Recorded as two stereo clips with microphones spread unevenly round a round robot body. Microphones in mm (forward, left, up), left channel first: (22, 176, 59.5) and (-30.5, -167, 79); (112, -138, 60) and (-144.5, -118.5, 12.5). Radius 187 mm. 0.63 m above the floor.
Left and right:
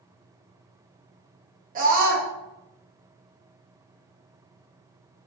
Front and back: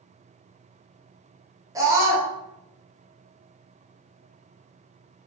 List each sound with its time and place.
1.8 s a scream: 145° right, 0.7 m